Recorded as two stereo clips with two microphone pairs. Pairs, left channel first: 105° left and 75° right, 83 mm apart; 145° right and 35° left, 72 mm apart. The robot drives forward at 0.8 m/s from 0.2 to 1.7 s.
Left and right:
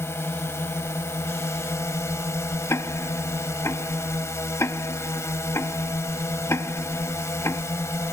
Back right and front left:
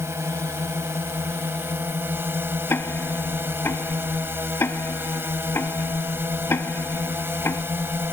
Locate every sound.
0.0 s a drone: 60° left; by 8.1 s 70° left
2.7 s ticking: 160° left